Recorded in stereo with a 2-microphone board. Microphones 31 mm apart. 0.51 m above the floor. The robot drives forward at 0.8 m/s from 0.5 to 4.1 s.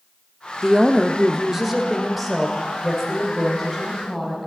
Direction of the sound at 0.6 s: 15° right (ahead or behind).